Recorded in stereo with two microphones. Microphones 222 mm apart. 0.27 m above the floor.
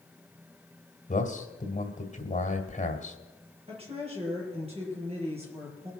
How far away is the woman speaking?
About 6.5 m.